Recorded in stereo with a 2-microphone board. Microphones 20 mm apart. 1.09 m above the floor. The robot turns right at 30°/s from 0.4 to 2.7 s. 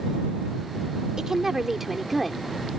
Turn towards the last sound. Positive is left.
turn(degrees=20)